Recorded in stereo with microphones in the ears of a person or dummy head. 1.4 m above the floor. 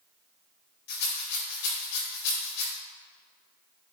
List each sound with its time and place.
0.9 s a rattle: 60° left (ahead or behind), 4.5 m